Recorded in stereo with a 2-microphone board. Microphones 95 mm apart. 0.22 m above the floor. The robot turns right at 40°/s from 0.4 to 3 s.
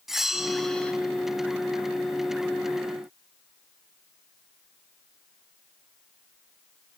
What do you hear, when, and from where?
0.1 s a bell: 5° right (ahead or behind), 0.9 m; by 0.9 s 10° left (ahead or behind), 0.9 m